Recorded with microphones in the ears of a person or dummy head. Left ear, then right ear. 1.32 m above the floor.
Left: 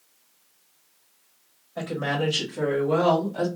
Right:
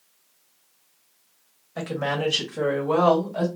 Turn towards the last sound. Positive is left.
turn(degrees=-35)  # may be behind; listen again after turning